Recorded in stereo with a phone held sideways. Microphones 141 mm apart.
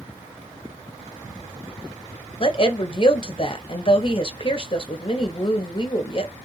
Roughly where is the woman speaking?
Left.